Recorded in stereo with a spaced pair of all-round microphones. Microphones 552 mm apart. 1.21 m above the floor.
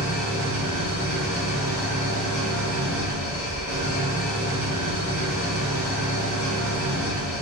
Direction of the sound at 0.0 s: 50° right (ahead or behind).